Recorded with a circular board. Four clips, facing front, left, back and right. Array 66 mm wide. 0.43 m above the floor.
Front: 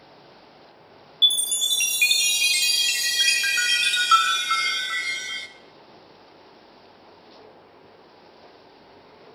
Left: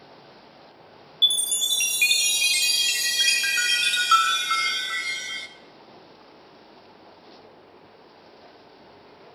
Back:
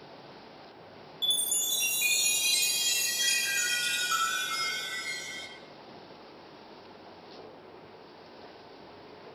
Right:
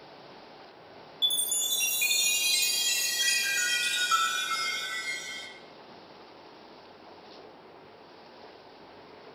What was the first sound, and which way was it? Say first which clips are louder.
A chime: left 7 dB, front 10 dB; 30° left.